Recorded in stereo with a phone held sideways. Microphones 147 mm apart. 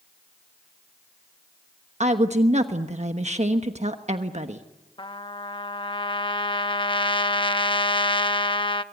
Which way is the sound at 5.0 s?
35° left (ahead or behind).